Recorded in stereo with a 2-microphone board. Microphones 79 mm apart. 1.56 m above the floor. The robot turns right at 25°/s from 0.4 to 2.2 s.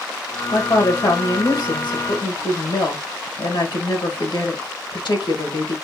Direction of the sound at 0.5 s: 60° left.